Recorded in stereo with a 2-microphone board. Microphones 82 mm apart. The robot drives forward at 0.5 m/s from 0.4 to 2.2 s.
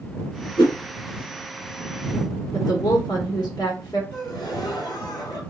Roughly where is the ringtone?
No ringtone in this recording.